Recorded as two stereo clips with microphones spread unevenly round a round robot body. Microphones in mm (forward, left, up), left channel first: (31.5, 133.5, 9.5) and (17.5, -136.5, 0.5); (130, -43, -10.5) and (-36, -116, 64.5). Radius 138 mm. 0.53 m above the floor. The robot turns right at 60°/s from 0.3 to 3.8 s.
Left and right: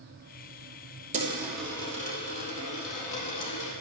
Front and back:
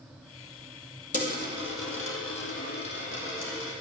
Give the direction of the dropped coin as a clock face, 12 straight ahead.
1 o'clock.